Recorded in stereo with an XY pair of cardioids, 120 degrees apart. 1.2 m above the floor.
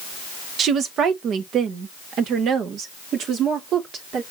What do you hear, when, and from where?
0.6 s a woman speaking: 55° right, 1.2 m; by 4.2 s 60° right, 3.5 m